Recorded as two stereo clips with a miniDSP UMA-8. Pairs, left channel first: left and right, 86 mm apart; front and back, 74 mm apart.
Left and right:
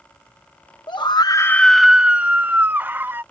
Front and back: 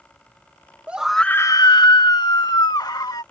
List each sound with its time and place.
0.9 s a scream: 110° left; by 3.2 s 25° right